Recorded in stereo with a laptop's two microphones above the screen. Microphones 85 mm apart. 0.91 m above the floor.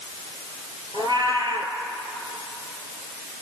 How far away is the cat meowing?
About 4 m.